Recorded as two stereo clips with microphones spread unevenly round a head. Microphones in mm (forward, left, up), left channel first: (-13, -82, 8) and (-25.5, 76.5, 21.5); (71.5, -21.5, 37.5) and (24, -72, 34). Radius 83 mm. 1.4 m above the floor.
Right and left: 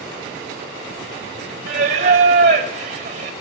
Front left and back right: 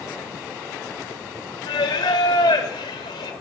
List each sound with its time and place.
1.7 s singing: 55° left, 1.3 m